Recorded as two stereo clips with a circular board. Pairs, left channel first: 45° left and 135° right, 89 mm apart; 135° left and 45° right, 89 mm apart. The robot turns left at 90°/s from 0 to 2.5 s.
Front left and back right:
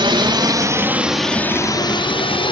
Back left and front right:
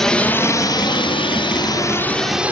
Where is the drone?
140° right; by 2.5 s 30° left.